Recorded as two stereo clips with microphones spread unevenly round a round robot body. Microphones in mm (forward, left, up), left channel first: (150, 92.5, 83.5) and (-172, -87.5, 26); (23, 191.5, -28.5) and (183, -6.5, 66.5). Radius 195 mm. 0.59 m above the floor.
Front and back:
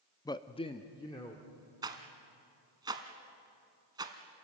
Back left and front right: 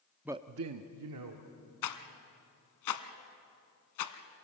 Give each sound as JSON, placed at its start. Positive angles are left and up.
{"t": 0.2, "sound": "a man speaking", "azimuth_deg": 120, "distance_m": 0.6}
{"t": 1.8, "sound": "a rattle", "azimuth_deg": 125, "distance_m": 1.1}